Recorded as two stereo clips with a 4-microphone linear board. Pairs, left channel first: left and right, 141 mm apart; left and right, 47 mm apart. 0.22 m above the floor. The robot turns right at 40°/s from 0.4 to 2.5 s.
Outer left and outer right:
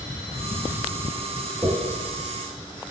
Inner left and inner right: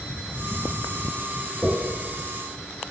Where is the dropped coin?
10° right (ahead or behind), 1.8 m; by 1.8 s 5° right (ahead or behind), 1.8 m.